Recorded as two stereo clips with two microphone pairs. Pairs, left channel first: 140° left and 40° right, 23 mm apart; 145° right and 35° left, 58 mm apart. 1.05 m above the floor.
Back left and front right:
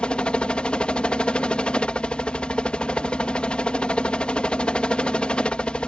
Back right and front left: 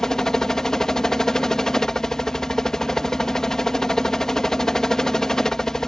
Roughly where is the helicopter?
Behind left.